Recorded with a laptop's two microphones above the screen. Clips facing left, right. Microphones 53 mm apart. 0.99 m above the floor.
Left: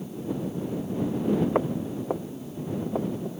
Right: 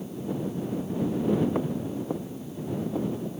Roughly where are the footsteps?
Left.